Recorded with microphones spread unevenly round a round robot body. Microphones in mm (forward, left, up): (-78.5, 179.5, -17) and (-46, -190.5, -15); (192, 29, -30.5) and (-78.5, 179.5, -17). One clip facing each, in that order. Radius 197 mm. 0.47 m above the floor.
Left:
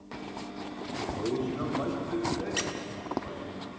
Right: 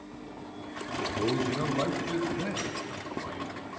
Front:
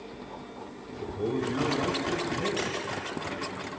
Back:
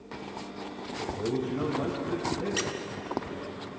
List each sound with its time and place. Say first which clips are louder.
1.0 s a man speaking: right 2 dB, front 1 dB; 100° right, 1.4 m
2.6 s a squeak: left 1 dB, front 1 dB; 120° left, 0.7 m